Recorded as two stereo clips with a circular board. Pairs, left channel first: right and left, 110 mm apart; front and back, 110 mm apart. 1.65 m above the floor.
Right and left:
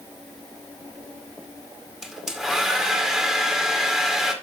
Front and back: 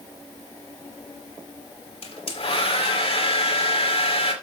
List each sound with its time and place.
2.0 s a hair dryer: 5° left, 2.0 m